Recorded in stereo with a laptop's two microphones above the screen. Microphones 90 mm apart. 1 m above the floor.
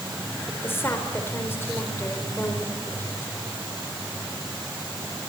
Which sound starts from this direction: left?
A woman speaking, at 0.5 s.